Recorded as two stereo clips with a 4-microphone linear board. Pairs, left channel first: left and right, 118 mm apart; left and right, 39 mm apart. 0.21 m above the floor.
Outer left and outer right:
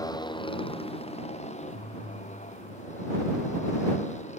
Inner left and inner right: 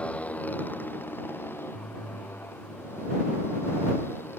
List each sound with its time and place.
0.0 s a motorcycle: 35° left (ahead or behind); by 4.4 s 80° left